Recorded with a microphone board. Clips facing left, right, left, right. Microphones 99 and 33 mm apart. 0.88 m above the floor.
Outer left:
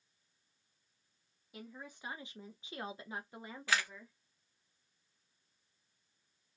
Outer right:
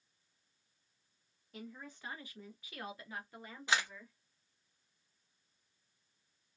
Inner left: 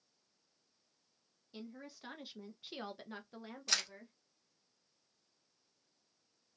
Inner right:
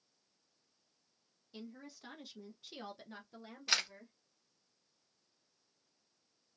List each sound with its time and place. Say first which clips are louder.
1.5 s a woman speaking: outer right 1 dB, inner left 1 dB; 10° left (ahead or behind), 0.8 m; by 4.1 s 20° left (ahead or behind), 1.2 m
3.7 s a camera shutter: outer right 1 dB, inner right 3 dB; 20° right (ahead or behind), 0.6 m